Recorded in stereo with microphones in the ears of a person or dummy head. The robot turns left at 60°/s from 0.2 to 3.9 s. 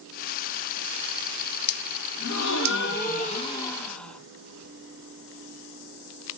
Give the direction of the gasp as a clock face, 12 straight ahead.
8 o'clock.